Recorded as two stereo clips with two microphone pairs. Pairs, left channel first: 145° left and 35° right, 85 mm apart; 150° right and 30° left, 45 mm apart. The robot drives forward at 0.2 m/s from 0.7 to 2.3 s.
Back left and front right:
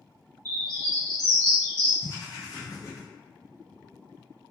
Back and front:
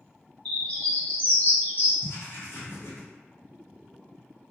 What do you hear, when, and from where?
0.5 s a bird: 85° right, 0.8 m; by 1.9 s 105° right, 0.8 m
2.0 s writing: 170° right, 0.8 m